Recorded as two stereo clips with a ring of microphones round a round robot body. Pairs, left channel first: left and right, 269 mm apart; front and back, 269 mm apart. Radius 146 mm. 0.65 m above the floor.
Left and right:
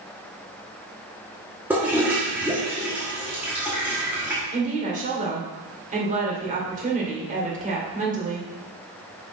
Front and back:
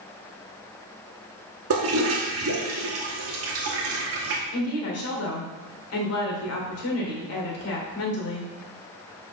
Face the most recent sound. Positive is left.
turn(degrees=-30)